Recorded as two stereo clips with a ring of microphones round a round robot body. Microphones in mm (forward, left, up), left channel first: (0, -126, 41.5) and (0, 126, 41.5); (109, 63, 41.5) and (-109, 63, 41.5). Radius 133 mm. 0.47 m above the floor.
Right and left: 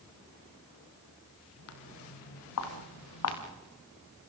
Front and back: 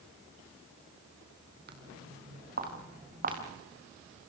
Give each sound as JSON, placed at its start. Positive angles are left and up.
{"t": 1.7, "sound": "footsteps", "azimuth_deg": -125, "distance_m": 3.0}